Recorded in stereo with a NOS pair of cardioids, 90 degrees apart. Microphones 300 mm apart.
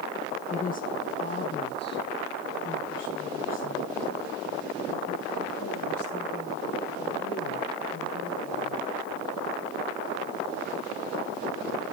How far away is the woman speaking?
About 1.4 m.